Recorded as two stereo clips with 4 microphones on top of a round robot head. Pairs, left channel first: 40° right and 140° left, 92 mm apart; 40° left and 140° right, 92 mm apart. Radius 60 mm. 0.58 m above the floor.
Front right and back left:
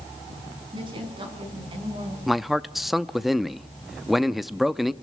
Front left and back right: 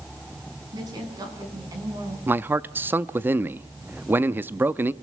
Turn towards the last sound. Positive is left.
turn(degrees=-140)